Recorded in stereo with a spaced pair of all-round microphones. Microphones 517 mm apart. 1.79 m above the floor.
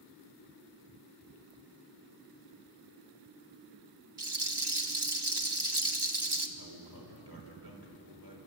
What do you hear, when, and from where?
4.2 s a rattle: 50° right (ahead or behind), 1.4 m
6.6 s a man speaking: 45° right (ahead or behind), 5.5 m